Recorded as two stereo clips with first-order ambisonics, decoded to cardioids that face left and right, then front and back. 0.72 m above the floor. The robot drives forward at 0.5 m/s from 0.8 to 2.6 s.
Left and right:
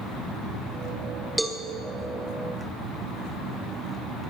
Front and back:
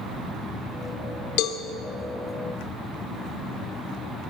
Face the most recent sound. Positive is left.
turn(degrees=-5)